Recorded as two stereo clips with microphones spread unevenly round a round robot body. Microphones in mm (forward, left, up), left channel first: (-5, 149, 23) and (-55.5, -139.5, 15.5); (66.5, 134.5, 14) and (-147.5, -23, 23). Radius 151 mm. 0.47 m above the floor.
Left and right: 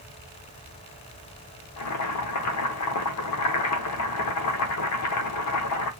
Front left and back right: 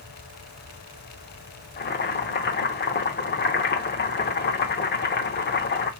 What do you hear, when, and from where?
1.8 s boiling: 75° left, 0.9 m